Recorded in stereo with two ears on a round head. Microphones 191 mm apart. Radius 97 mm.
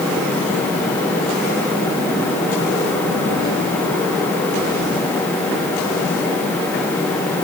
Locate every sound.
Only background noise.